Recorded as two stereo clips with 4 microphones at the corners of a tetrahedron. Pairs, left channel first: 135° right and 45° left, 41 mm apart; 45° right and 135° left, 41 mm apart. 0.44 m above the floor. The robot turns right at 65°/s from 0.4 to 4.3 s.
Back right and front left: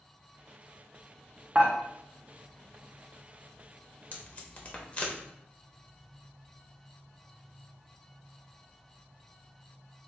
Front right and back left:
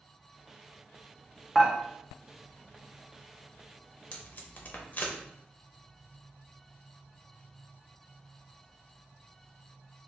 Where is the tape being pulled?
95° right, 0.6 m; by 5.2 s 85° right, 0.6 m.